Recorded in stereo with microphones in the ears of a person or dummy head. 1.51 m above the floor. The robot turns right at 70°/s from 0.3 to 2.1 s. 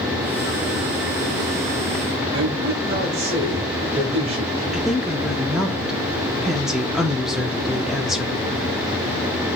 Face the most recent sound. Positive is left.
turn(degrees=0)  # may be behind; listen again after turning